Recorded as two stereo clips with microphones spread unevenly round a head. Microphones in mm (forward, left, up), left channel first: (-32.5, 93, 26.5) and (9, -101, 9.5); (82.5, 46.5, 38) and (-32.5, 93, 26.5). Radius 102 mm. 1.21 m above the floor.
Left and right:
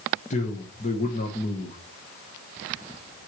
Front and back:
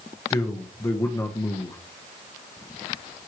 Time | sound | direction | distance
0.3 | a man speaking | 45° left | 1.3 m